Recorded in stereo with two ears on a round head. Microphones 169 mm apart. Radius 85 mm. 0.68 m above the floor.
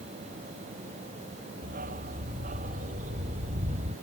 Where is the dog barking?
45° right (ahead or behind); by 3.9 s 35° right (ahead or behind).